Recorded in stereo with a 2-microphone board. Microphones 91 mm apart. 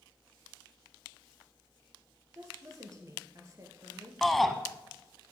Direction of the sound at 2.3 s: 40° right (ahead or behind).